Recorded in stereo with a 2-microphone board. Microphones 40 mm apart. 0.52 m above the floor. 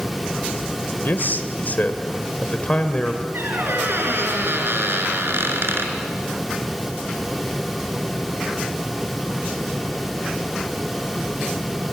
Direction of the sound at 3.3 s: 70° right (ahead or behind).